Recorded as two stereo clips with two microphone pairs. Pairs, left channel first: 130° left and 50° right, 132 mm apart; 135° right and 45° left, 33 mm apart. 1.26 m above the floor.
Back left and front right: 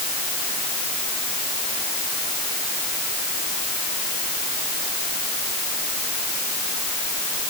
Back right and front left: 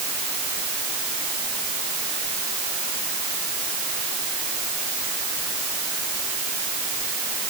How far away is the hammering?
No hammering in this recording.